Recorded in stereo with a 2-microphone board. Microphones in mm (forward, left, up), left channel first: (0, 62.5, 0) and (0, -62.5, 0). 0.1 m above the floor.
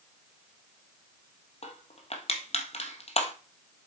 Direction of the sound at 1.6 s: 60° left (ahead or behind).